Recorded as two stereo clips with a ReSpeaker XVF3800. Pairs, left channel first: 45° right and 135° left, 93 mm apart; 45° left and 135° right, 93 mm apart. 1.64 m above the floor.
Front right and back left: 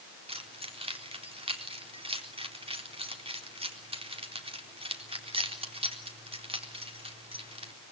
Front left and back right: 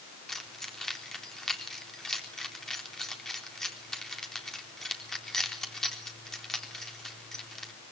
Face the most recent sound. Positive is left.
turn(degrees=130)